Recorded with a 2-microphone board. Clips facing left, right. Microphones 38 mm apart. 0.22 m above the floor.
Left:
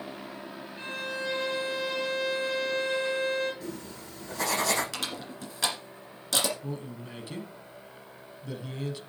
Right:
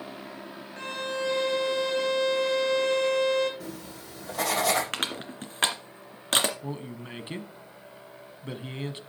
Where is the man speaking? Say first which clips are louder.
Right 1 dB; 40° right (ahead or behind), 1.3 m.